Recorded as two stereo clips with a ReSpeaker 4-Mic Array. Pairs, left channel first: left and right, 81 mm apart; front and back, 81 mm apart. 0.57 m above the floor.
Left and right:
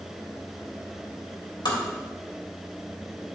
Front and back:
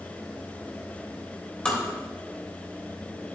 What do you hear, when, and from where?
1.6 s tapping: 75° left, 2.5 m